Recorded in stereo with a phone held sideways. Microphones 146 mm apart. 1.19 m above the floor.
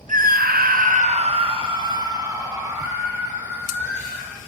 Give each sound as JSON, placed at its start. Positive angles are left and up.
{"t": 0.1, "sound": "a scream", "side_deg": -60, "distance_m": 0.8}